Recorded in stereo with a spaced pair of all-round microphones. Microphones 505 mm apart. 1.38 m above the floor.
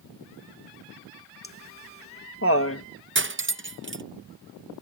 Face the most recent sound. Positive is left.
turn(degrees=-25)  # may be behind; listen again after turning